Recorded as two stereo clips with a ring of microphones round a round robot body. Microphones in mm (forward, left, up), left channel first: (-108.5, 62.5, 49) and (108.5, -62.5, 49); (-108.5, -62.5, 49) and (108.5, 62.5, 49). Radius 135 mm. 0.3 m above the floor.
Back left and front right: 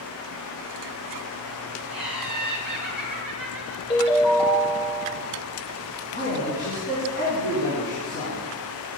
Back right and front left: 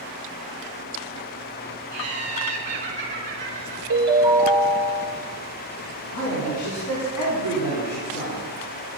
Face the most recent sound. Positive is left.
turn(degrees=-155)